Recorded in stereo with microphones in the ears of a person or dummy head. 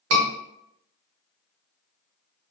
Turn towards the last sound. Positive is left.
turn(degrees=-75)  # may be behind; listen again after turning